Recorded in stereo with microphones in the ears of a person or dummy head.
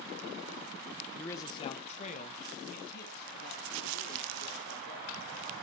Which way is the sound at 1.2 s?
15° left (ahead or behind).